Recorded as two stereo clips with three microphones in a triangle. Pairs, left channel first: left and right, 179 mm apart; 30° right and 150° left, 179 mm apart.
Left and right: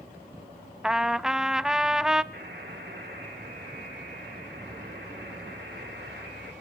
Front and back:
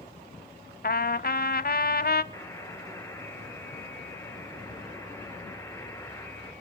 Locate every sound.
0.8 s a trumpet: 5° right, 0.7 m
2.3 s a buzzer: 105° right, 6 m